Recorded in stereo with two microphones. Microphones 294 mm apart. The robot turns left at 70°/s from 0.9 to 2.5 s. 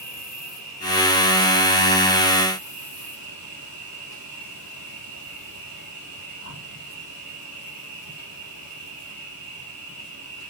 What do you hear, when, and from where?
0.0 s an insect: 55° left, 3.5 m; by 10.5 s 55° right, 3.5 m